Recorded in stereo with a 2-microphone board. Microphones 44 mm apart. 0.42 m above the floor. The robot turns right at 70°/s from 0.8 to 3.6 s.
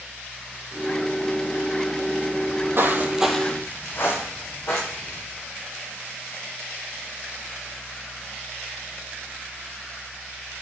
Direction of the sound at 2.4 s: 35° right (ahead or behind).